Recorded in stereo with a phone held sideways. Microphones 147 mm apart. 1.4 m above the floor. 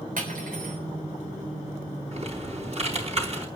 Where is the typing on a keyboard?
50° right (ahead or behind), 3.5 m.